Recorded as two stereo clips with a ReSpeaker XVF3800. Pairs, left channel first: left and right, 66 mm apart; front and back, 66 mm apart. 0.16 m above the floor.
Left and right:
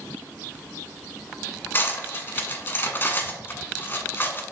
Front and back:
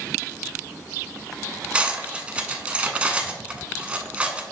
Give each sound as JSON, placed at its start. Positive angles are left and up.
{"t": 1.7, "sound": "cutlery clinking", "azimuth_deg": 120, "distance_m": 0.8}